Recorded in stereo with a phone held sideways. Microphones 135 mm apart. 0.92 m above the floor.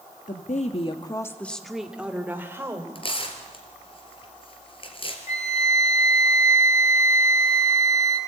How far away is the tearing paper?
About 3.5 m.